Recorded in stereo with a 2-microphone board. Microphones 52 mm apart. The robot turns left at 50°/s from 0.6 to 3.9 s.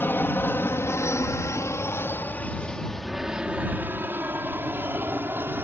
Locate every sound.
0.0 s an aircraft: 45° left (ahead or behind); by 5.6 s 40° right (ahead or behind)